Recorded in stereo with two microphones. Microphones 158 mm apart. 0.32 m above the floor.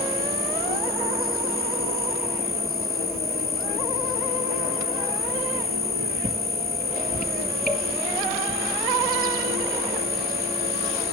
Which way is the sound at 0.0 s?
70° right (ahead or behind).